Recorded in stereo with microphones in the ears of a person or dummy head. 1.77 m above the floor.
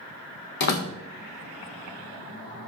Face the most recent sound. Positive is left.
turn(degrees=50)  # may be behind; listen again after turning